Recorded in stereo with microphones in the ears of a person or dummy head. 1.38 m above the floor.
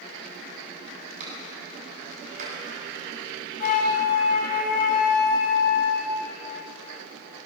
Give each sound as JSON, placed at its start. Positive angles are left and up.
{"t": 1.2, "sound": "a clap", "side_deg": -45, "distance_m": 8.0}
{"t": 3.6, "sound": "a flute", "side_deg": 55, "distance_m": 2.0}